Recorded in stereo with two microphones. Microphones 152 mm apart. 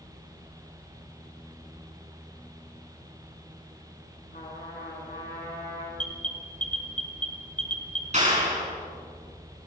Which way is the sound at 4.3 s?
85° left.